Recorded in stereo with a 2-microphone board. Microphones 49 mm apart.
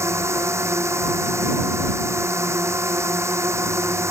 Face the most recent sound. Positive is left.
turn(degrees=-80)